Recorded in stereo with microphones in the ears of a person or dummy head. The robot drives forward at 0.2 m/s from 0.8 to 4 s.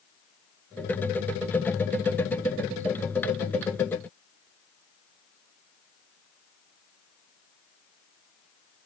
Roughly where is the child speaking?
I don't hear a child speaking.